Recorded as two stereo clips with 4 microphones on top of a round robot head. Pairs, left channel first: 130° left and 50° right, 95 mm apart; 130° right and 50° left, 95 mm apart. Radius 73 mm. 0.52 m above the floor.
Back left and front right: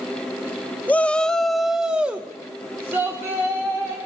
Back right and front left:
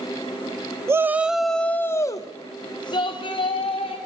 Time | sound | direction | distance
0.9 | a shout | 70° left | 1.1 m